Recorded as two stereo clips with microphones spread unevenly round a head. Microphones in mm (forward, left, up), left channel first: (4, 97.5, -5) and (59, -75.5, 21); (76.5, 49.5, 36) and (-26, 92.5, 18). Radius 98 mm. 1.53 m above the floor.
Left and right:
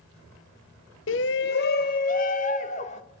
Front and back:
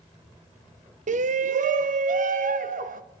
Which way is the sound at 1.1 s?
145° left.